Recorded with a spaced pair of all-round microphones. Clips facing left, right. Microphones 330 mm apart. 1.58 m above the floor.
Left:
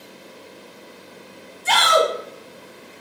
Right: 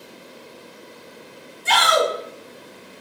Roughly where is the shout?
Left.